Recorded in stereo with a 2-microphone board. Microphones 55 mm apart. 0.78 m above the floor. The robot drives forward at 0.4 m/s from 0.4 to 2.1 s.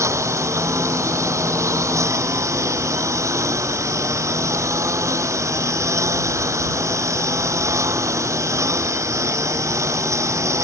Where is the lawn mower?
70° right (ahead or behind); by 10.7 s 75° right (ahead or behind).